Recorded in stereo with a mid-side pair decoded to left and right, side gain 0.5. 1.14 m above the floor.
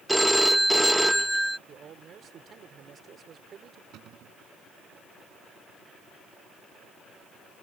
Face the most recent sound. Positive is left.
turn(degrees=-70)